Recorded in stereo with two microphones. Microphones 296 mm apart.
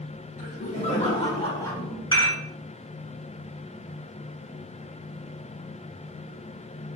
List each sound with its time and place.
0.4 s laughter: 30° left (ahead or behind), 1.5 m; by 2.0 s 5° left (ahead or behind), 1.0 m
2.1 s dishes clattering: 15° left (ahead or behind), 1.3 m